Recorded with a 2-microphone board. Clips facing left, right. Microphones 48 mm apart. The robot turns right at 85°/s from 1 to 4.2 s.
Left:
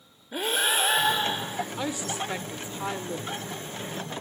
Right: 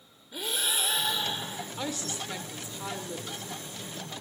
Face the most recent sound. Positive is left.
turn(degrees=-130)